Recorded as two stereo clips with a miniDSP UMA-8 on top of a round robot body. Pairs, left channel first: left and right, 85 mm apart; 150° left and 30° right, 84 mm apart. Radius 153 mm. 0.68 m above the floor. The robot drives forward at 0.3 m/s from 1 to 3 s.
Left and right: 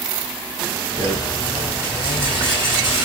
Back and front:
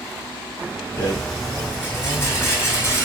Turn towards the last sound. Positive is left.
turn(degrees=-145)